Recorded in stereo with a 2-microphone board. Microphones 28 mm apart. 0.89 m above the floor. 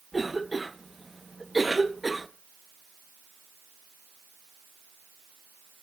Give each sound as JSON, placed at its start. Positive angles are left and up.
{"t": 0.1, "sound": "a cough", "side_deg": -5, "distance_m": 0.9}